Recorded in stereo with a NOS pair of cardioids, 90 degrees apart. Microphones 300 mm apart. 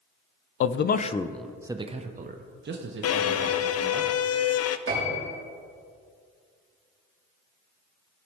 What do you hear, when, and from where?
0.6 s a man speaking: 50° left, 0.6 m; by 4.0 s 50° right, 1.8 m
3.0 s a violin: 50° left, 0.6 m
4.9 s a piano: 45° right, 3.5 m